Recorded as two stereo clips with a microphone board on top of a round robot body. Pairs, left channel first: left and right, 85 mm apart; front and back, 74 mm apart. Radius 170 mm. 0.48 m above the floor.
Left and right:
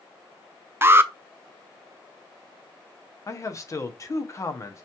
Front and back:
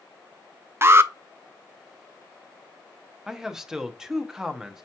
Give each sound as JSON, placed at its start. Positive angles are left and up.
{"t": 0.8, "sound": "an alarm", "azimuth_deg": -140, "distance_m": 0.6}
{"t": 3.3, "sound": "a man speaking", "azimuth_deg": 100, "distance_m": 0.9}